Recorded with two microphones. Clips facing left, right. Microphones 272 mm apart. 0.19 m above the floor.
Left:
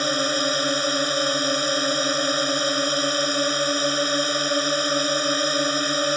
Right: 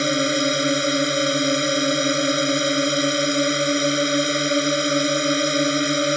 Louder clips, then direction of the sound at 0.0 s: Right 4 dB; 25° right (ahead or behind).